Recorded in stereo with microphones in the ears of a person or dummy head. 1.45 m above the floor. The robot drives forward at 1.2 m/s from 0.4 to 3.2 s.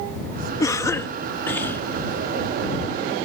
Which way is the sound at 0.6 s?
15° left (ahead or behind).